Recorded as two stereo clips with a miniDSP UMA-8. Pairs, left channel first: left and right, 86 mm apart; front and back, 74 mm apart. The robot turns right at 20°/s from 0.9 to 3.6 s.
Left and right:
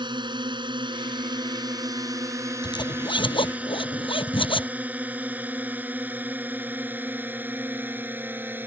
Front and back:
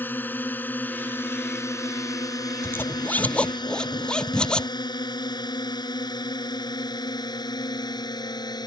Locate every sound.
0.0 s a drone: 65° right; by 8.7 s 25° right
2.6 s a zipper: 60° left; by 4.7 s 80° left